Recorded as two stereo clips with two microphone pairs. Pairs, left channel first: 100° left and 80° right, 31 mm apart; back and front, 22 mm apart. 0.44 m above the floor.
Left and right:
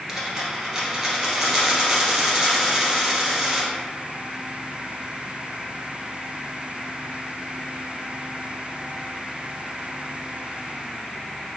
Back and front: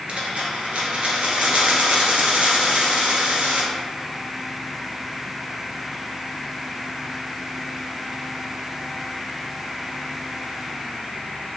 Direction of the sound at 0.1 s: Straight ahead.